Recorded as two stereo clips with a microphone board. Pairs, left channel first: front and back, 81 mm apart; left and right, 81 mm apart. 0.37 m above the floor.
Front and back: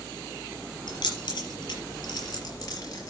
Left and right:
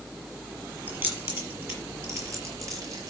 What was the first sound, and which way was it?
Keys jangling, 25° right.